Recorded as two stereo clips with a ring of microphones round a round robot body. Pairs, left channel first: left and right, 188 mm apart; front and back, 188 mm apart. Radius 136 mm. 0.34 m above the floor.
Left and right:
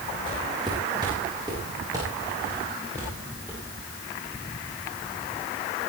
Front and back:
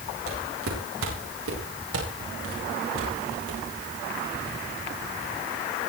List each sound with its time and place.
0.3 s footsteps: 165° right, 10 m; by 3.6 s 170° right, 12 m